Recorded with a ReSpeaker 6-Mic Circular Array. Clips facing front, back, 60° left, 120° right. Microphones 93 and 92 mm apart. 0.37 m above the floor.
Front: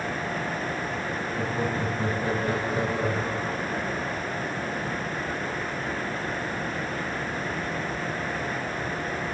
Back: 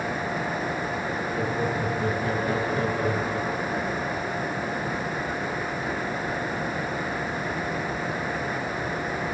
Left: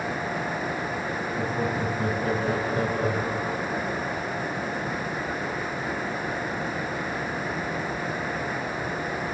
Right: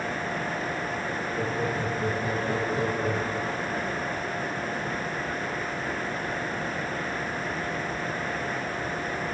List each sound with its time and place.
1.4 s laughter: 45° left, 2.5 m; by 3.8 s 105° left, 1.4 m